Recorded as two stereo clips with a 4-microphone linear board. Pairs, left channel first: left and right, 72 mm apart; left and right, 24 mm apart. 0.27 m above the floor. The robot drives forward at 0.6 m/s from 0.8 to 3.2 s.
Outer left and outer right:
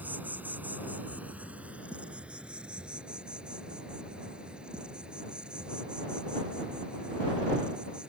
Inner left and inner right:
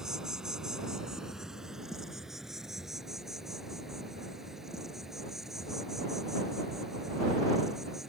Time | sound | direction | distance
0.0 | an insect | 25° right (ahead or behind) | ?